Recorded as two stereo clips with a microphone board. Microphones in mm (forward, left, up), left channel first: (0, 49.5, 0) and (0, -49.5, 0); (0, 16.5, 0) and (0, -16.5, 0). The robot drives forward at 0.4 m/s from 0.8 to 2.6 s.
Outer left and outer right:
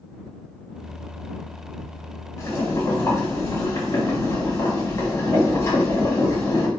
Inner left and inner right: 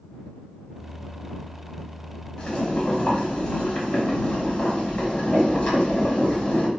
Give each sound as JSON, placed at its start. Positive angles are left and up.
{"t": 2.4, "sound": "boiling", "side_deg": 30, "distance_m": 1.2}